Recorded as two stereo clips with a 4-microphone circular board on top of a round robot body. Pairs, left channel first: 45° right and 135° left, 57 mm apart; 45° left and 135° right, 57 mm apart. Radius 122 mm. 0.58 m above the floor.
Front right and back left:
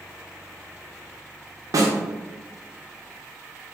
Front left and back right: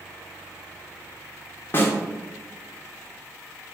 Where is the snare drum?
100° left, 0.5 m.